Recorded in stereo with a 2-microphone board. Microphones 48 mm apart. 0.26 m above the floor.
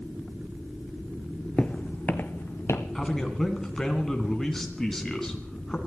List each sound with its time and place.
1.6 s footsteps: 15° left (ahead or behind), 0.6 m; by 2.9 s 50° left (ahead or behind), 1.5 m
3.0 s a man speaking: 10° left (ahead or behind), 2.5 m